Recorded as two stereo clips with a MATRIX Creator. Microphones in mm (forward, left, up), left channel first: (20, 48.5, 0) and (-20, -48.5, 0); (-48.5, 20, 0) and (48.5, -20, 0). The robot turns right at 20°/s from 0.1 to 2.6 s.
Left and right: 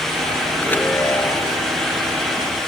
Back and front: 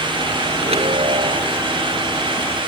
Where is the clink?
No clink in this recording.